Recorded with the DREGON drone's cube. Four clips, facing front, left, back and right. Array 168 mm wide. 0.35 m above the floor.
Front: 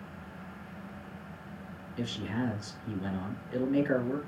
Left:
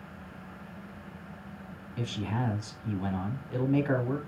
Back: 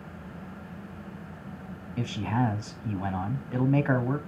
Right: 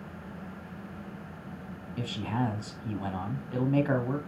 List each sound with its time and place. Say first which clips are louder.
2.0 s a man speaking: right 2 dB, back 5 dB; 160° right, 2.5 m